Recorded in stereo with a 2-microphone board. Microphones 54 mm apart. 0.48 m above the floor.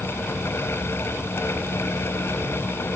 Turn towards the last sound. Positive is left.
No sound to turn to.